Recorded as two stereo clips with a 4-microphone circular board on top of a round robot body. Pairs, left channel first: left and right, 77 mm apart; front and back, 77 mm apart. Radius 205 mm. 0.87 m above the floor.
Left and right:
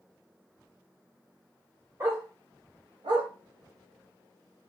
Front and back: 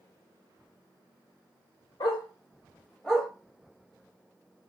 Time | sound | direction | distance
2.0 | a dog barking | 35° right | 1.9 m